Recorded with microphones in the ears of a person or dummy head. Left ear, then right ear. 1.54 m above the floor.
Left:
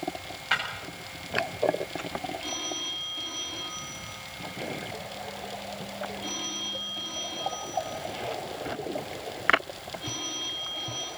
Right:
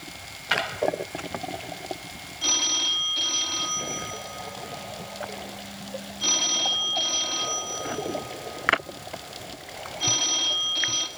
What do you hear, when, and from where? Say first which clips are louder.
0.5 s breaking glass: right 2 dB; 5° right (ahead or behind), 6.5 m
2.4 s a phone ringing: right 15 dB; 70° right (ahead or behind), 2 m